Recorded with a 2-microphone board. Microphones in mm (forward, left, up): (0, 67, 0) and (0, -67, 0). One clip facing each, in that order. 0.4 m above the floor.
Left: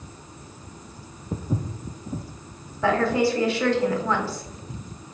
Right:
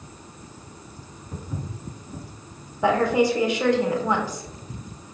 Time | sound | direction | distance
1.3 | footsteps | 50° left (ahead or behind) | 0.6 m
2.8 | a woman speaking | 15° right (ahead or behind) | 0.8 m